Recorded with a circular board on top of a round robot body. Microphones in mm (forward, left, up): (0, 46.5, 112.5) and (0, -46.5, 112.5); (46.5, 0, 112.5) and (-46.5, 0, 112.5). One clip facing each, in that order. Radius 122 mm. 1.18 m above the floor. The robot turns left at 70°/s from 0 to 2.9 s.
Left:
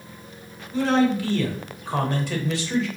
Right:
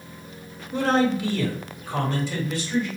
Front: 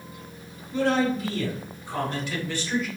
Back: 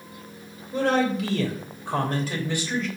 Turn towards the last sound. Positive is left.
turn(degrees=80)